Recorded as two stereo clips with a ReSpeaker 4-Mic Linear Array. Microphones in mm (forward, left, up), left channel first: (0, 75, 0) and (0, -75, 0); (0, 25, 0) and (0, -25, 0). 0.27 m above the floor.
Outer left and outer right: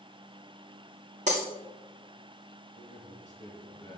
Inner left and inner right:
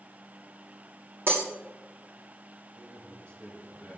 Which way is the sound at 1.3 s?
50° right (ahead or behind).